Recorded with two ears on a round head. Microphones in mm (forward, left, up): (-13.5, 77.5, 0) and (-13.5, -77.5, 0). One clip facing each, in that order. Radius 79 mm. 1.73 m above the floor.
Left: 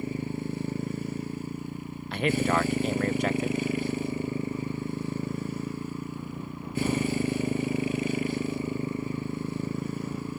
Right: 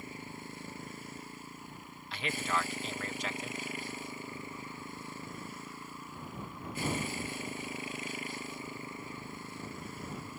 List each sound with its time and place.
0.0 s a motorcycle: 70° left (ahead or behind)
2.1 s a man speaking: 45° left (ahead or behind)